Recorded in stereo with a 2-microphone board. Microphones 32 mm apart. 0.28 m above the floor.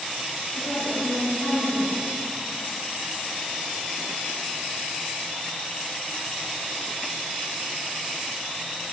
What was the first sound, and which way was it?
A woman speaking, 60° left (ahead or behind).